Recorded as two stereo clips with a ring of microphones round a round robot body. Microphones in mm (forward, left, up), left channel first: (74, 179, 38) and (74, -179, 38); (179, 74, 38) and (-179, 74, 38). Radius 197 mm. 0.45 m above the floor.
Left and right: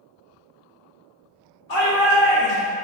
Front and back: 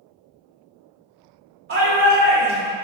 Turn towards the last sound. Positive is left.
turn(degrees=135)